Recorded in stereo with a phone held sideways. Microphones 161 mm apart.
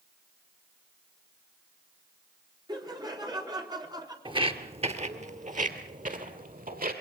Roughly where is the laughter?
Right.